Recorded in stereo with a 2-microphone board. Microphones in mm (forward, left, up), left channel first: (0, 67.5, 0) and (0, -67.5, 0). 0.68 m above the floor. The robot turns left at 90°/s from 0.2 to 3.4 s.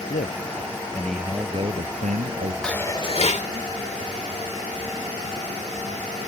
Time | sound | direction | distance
0.1 | a man speaking | 85° left | ?
2.6 | dishes clattering | 175° left | ?